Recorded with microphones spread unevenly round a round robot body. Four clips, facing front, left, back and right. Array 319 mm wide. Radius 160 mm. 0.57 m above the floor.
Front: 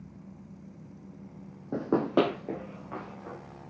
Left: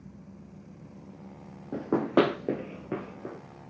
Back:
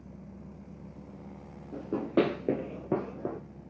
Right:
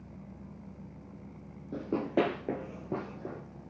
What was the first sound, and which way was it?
Running footsteps, 25° left.